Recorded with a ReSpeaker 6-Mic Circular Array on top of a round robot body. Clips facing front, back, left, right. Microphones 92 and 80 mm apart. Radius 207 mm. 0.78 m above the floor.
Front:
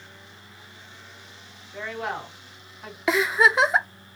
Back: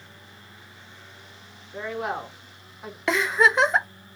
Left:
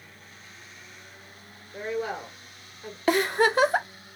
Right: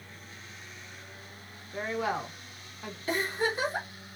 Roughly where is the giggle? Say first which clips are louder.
Front 1 dB, left 8 dB; left.